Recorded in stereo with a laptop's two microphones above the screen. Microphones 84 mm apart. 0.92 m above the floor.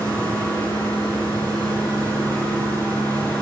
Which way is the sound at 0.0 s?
20° left (ahead or behind).